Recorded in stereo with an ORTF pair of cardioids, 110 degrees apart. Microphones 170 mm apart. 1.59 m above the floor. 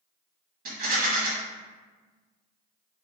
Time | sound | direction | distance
0.7 | a rattle | 60° right | 1.4 m